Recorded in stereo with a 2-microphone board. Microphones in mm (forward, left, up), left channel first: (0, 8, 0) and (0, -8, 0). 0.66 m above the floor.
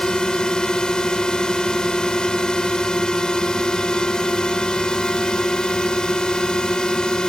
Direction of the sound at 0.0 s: 50° left (ahead or behind).